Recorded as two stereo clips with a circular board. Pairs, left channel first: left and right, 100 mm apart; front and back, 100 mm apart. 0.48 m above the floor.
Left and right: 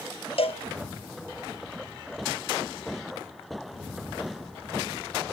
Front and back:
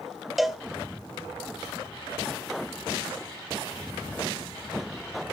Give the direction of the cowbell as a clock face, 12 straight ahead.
9 o'clock.